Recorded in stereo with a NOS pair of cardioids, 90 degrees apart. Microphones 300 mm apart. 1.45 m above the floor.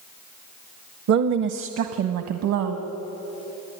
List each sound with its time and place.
1.1 s a woman speaking: 65° right, 1.0 m; by 2.9 s 80° right, 2 m